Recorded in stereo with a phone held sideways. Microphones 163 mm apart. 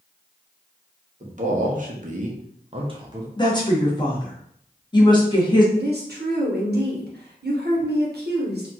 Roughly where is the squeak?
No squeak in this recording.